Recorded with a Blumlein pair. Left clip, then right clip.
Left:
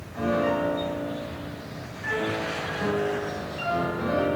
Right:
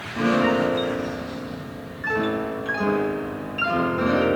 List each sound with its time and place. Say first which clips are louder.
0.1 s a piano: right 4 dB; 25° right, 2 m